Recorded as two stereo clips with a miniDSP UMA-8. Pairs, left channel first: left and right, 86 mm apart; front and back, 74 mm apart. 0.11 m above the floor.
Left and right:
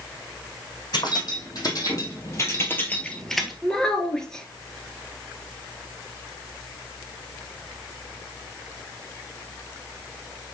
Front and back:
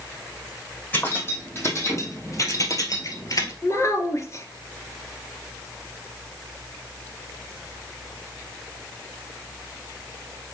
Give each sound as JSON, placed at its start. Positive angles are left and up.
{"t": 0.9, "sound": "keys jangling", "azimuth_deg": 55, "distance_m": 3.5}
{"t": 3.6, "sound": "a child speaking", "azimuth_deg": 10, "distance_m": 1.7}